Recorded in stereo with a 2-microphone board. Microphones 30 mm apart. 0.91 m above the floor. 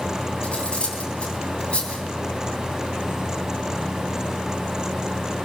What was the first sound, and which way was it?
Cutlery clinking, 40° left (ahead or behind).